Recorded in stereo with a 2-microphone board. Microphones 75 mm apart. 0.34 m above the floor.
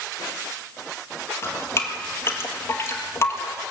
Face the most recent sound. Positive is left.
turn(degrees=35)  # may be behind; listen again after turning